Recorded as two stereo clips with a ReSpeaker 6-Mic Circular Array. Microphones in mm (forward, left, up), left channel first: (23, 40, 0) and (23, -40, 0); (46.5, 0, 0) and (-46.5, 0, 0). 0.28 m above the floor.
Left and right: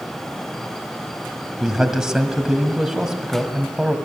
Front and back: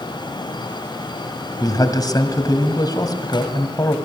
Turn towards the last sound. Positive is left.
turn(degrees=-10)